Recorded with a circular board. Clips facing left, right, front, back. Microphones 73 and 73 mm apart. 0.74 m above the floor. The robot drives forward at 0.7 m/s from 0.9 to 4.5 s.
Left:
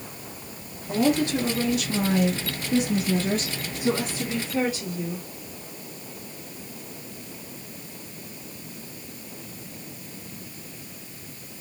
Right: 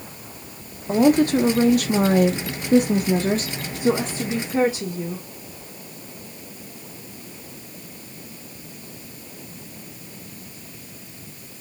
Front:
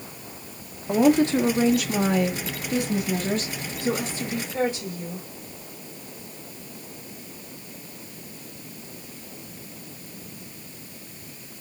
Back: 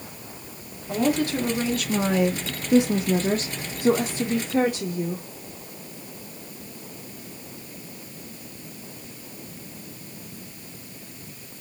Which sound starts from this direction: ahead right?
A woman speaking, at 0.9 s.